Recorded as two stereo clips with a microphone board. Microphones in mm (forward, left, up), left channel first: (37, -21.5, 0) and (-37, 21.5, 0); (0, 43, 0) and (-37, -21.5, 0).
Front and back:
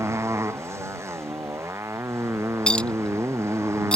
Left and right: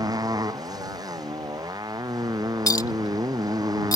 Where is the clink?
50° left.